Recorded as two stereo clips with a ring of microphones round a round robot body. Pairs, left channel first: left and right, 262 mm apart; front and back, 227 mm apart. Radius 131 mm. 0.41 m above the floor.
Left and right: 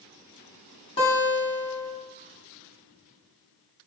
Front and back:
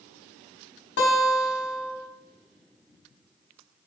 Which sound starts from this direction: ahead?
A guitar, at 1.0 s.